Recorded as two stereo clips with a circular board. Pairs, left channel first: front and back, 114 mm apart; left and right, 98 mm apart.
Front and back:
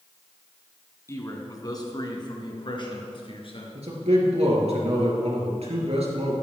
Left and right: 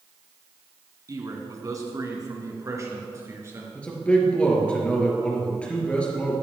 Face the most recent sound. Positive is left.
turn(degrees=170)